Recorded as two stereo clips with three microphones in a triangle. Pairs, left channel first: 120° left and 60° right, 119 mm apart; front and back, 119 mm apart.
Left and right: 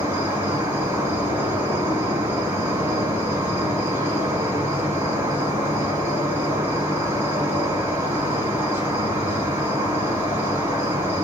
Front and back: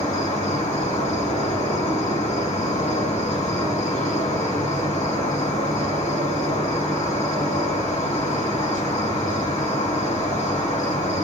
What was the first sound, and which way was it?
An insect, 10° left.